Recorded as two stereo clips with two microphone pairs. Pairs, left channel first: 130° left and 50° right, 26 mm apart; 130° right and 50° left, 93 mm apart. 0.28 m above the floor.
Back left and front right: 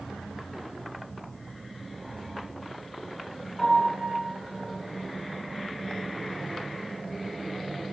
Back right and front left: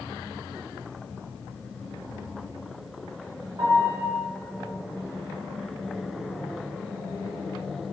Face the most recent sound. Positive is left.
turn(degrees=75)